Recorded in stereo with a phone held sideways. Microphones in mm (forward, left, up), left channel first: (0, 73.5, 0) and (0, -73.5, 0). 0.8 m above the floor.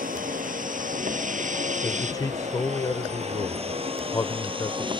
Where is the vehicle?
80° right; by 5.0 s 35° right (ahead or behind).